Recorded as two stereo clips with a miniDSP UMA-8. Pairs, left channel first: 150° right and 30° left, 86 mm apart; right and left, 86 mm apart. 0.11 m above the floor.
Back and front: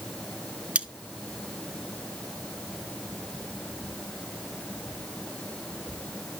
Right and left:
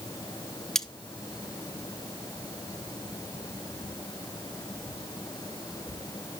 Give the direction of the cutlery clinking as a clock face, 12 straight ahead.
1 o'clock.